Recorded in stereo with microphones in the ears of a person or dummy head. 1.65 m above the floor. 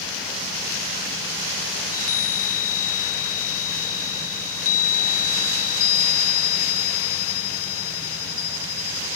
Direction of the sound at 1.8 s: 80° left.